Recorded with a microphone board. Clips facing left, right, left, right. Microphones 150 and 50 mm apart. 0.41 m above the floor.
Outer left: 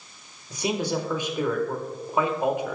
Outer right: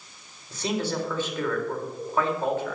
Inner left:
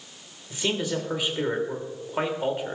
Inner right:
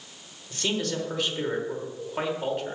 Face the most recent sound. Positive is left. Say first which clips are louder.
# outer left 2 dB, inner left 2 dB
turn(degrees=15)  # may be behind; listen again after turning